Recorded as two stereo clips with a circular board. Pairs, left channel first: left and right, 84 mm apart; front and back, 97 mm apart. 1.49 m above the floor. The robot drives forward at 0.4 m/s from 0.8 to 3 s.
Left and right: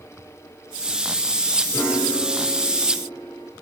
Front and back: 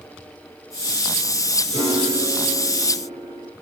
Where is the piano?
140° left, 6.5 m.